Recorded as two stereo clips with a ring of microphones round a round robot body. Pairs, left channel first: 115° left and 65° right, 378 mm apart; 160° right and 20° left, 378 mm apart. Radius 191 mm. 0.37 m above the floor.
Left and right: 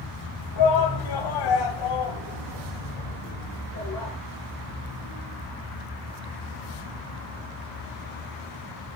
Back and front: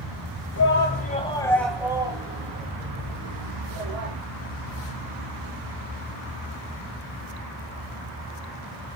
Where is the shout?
150° left, 2.5 m; by 4.1 s 65° left, 4 m.